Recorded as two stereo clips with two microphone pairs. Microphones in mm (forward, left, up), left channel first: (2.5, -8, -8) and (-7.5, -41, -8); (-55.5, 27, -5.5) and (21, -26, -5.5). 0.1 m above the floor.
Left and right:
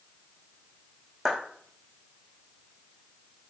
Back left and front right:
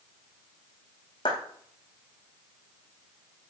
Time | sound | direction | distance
1.2 | a clap | straight behind | 5 m